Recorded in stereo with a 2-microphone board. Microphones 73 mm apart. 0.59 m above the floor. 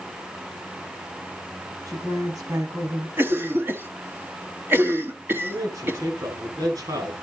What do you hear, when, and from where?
1.9 s a woman speaking: 55° right (ahead or behind), 6.5 m
3.2 s a cough: 30° right (ahead or behind), 1.4 m
5.4 s a man speaking: 55° right (ahead or behind), 7.5 m